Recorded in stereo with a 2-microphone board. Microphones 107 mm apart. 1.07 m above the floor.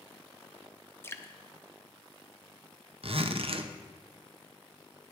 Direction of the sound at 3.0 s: 60° right (ahead or behind).